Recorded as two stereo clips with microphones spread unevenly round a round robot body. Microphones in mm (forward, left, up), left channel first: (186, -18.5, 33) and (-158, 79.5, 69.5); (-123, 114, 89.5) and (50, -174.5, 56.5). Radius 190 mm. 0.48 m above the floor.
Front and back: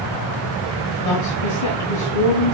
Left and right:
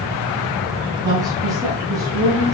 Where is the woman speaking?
5° left, 5.5 m.